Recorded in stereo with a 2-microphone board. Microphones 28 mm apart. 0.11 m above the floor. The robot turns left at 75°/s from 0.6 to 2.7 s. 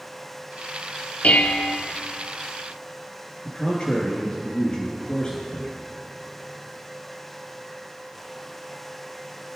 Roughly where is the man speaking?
Left.